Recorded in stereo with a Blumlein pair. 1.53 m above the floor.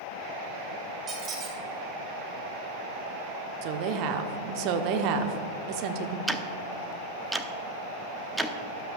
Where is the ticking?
5° right, 0.6 m.